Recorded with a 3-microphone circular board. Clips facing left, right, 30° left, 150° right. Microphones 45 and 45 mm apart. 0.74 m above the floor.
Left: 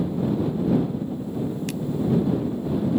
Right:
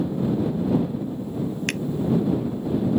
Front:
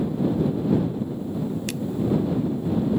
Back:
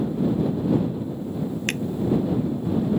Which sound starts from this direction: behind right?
A finger snap, at 1.7 s.